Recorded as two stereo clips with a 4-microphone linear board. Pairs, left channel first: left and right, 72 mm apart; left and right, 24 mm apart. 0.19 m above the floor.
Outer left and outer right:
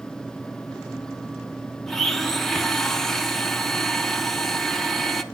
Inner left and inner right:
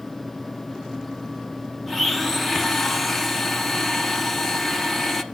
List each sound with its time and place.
1.9 s a blender: 5° left (ahead or behind), 0.7 m